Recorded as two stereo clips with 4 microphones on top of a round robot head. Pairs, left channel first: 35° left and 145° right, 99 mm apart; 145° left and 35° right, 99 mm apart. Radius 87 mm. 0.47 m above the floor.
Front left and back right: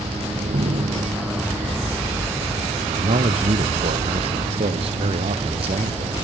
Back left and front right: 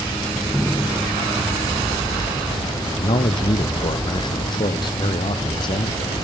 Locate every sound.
0.3 s a door slam: 125° right
2.9 s a man speaking: 170° right